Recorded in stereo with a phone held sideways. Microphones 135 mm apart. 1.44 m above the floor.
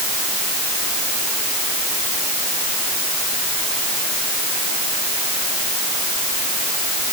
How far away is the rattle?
No rattle in this recording.